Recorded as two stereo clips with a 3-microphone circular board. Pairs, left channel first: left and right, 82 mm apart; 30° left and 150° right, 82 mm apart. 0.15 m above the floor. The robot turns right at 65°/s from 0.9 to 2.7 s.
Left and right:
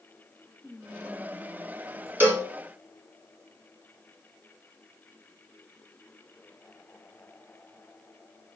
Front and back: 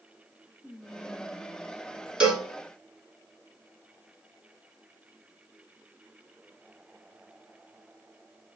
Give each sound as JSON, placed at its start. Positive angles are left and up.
{"t": 0.6, "sound": "whispering", "azimuth_deg": 5, "distance_m": 2.0}
{"t": 2.2, "sound": "a cowbell", "azimuth_deg": -85, "distance_m": 1.4}